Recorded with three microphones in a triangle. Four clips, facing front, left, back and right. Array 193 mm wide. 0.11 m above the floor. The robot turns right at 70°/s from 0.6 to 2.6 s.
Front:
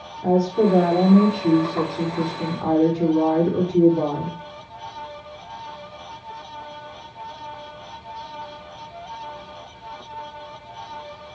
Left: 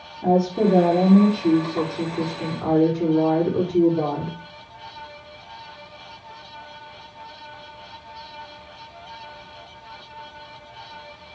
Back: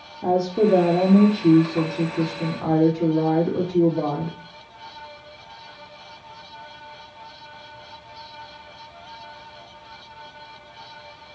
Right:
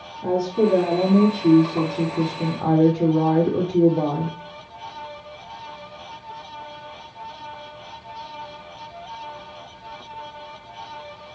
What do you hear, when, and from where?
0.2 s a woman speaking: 155° left, 4.5 m; by 4.4 s 65° right, 4.5 m